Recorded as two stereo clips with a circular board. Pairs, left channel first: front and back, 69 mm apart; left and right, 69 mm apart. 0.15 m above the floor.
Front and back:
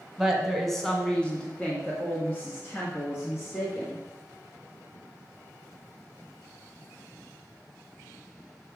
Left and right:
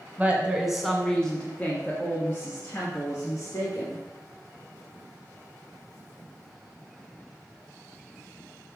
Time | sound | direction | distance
0.2 | a woman speaking | 105° right | 1.4 m